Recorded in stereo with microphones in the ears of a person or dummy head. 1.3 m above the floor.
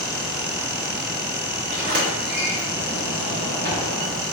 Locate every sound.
1.7 s a sliding door: 55° right (ahead or behind), 1.6 m